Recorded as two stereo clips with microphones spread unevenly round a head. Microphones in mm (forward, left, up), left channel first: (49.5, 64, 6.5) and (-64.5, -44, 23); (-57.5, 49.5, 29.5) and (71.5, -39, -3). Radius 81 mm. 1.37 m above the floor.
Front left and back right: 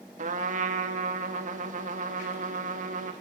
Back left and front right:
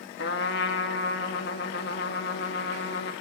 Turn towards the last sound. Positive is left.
turn(degrees=175)